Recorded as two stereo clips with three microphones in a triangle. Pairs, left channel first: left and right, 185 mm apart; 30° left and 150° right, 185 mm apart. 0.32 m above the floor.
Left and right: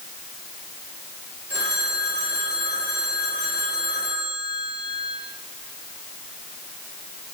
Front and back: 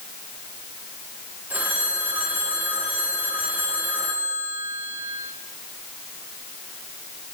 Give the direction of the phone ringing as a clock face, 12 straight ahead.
2 o'clock.